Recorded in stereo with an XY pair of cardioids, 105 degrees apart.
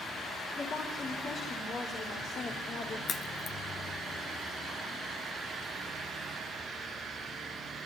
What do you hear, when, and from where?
0.6 s a woman speaking: 45° left, 5 m; by 3.0 s 65° left, 4.5 m
3.1 s a crack: 50° left, 1.3 m